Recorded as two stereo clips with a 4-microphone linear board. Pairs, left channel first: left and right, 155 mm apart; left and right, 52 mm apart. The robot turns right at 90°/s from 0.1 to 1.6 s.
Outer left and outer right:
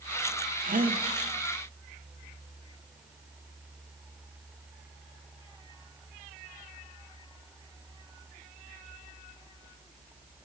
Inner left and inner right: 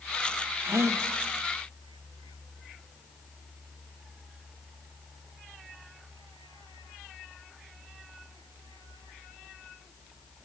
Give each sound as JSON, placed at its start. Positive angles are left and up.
{"t": 0.6, "sound": "a gasp", "azimuth_deg": -115, "distance_m": 0.9}